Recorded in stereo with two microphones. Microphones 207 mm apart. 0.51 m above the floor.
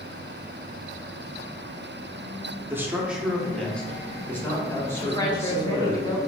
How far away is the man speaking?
About 0.7 m.